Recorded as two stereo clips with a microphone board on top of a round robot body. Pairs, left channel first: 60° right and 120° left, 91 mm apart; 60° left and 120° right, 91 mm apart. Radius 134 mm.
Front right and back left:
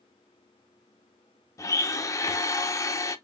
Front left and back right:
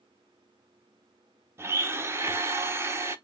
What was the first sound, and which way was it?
A blender, 80° right.